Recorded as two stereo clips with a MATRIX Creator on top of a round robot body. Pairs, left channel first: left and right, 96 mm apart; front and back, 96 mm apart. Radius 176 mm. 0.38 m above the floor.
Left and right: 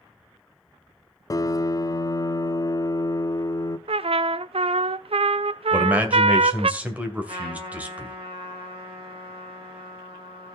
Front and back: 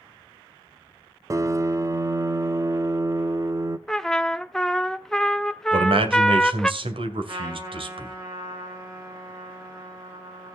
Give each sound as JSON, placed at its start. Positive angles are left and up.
{"t": 1.3, "sound": "a piano", "azimuth_deg": 135, "distance_m": 0.7}
{"t": 3.9, "sound": "a trumpet", "azimuth_deg": -85, "distance_m": 0.6}
{"t": 5.7, "sound": "a man speaking", "azimuth_deg": -165, "distance_m": 2.5}
{"t": 7.3, "sound": "a trumpet", "azimuth_deg": -125, "distance_m": 6.0}